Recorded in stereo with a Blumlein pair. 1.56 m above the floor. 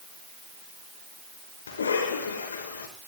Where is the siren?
No siren in this recording.